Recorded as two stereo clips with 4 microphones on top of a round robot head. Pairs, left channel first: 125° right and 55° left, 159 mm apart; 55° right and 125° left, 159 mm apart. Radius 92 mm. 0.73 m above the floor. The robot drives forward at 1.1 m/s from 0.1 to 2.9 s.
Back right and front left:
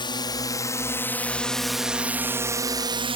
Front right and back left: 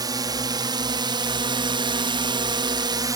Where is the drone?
175° right; by 3.2 s 70° left.